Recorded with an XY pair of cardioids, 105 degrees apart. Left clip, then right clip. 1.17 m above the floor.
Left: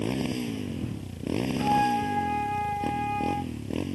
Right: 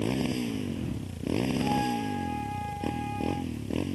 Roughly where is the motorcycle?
Ahead.